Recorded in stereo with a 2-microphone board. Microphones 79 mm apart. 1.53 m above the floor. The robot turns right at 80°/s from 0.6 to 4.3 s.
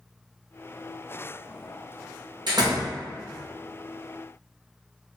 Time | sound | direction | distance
2.5 | a door slam | 65° right (ahead or behind) | 1.0 m